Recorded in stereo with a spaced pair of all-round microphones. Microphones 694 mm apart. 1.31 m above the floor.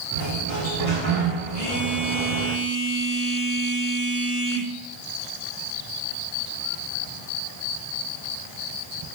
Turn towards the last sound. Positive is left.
turn(degrees=-30)  # may be behind; listen again after turning